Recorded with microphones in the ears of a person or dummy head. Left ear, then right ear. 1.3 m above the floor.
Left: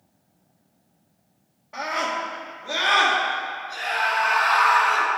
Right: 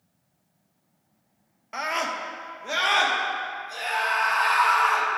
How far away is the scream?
About 1.0 m.